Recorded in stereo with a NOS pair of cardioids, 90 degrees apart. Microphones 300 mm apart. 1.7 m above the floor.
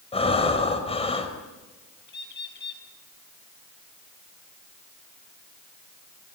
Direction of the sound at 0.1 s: 20° left.